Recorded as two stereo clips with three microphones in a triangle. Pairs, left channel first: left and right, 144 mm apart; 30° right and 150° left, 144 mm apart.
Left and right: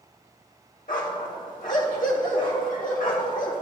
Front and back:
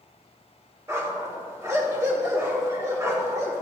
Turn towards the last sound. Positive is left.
turn(degrees=85)